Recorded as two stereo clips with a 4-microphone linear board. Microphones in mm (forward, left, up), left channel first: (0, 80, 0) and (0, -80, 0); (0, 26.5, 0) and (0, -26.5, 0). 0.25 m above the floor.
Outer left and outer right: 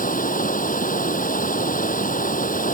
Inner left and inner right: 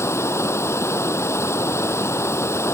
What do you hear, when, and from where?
0.0 s running water: 60° left (ahead or behind)